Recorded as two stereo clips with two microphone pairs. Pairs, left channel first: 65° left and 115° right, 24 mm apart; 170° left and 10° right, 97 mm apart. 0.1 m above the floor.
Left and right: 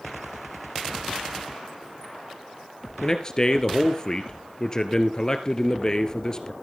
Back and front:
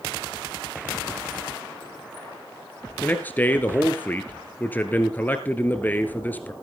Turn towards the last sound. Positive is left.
turn(degrees=110)